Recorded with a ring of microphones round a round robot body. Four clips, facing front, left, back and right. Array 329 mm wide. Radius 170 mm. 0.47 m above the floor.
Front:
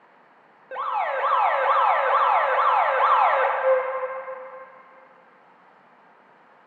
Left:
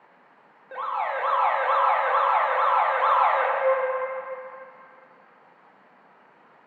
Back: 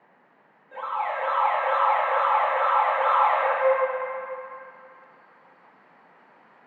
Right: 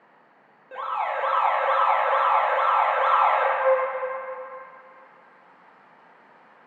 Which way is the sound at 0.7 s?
5° left.